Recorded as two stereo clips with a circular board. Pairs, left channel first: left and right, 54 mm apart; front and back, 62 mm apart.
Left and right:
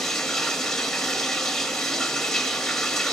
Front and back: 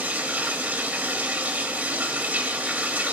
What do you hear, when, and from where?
0.0 s running water: 165° left, 0.9 m